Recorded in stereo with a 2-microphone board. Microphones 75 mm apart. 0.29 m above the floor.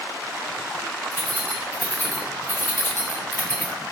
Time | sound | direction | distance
1.1 | keys jangling | 20° left (ahead or behind) | 2.0 m